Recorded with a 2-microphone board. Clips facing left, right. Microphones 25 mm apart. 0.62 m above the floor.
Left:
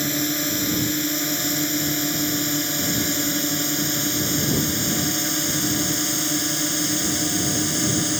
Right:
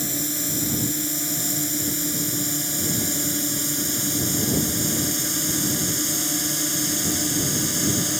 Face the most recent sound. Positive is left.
turn(degrees=5)  # may be behind; listen again after turning